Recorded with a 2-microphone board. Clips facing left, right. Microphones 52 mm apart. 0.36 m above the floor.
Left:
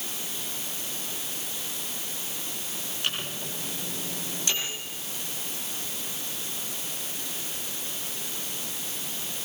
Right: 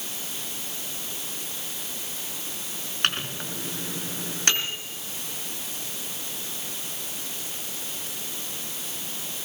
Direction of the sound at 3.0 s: 60° right (ahead or behind).